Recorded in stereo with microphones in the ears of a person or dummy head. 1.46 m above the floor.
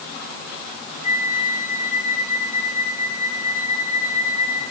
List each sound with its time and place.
1.0 s a flute: 30° left (ahead or behind), 1.8 m